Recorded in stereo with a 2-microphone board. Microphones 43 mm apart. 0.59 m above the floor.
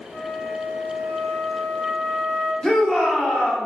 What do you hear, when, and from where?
0.1 s a flute: 60° left (ahead or behind), 2.0 m
2.6 s a shout: 10° left (ahead or behind), 1.1 m